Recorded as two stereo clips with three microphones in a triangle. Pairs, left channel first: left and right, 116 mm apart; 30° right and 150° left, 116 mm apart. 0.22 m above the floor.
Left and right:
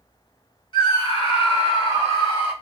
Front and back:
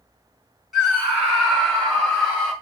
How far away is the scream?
About 2.5 m.